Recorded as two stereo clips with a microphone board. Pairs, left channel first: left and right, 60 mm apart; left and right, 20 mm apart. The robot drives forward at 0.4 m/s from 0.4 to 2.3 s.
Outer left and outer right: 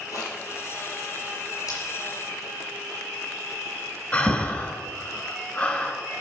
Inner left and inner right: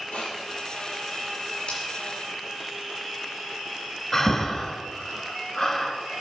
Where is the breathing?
25° left (ahead or behind), 1.2 m.